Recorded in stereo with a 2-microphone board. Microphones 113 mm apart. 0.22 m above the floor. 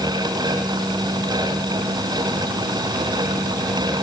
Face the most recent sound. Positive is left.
No sound to turn to.